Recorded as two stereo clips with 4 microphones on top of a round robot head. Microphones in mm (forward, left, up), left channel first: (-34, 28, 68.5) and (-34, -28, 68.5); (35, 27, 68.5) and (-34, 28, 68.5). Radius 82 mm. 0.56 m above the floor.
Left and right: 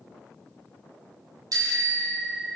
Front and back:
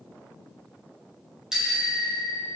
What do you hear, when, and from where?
1.5 s a bicycle bell: 100° right, 3.5 m